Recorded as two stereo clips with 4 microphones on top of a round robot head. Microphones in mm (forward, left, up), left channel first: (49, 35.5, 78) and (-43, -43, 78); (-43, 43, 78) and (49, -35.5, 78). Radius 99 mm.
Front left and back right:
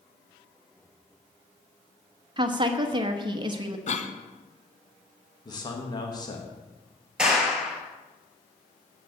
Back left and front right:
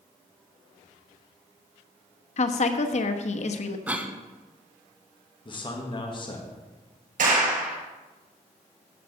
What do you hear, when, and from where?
2.4 s a woman speaking: 170° left, 1.1 m
3.9 s a cough: 35° left, 1.6 m
5.5 s a man speaking: 95° left, 1.8 m
7.2 s a clap: 55° right, 5 m